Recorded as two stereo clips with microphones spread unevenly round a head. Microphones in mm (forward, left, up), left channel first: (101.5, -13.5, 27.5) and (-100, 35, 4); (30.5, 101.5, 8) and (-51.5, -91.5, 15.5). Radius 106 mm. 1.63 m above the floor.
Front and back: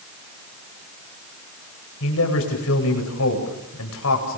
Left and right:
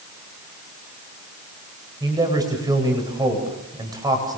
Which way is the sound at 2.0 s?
40° right.